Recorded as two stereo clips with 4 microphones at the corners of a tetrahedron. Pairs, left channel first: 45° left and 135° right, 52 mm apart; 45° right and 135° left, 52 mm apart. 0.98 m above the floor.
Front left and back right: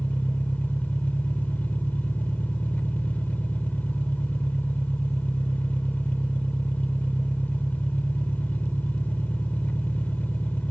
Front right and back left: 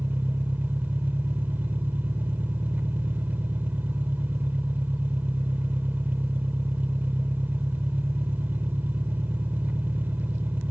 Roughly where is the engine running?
Left.